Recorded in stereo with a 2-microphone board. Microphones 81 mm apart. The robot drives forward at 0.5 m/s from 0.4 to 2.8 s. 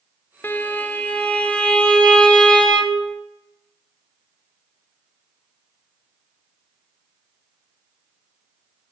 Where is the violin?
25° left (ahead or behind), 0.6 m; by 3.1 s 10° left (ahead or behind), 1.7 m.